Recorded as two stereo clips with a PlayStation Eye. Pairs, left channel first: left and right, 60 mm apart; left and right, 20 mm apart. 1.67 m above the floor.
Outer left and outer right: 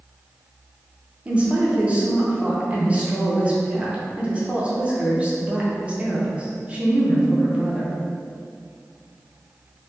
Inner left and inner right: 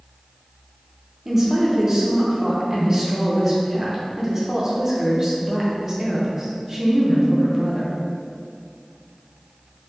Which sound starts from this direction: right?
A woman speaking, at 1.2 s.